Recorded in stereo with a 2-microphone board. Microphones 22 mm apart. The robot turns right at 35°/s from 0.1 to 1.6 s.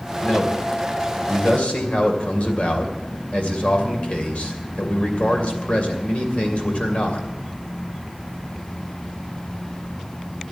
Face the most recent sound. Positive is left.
turn(degrees=110)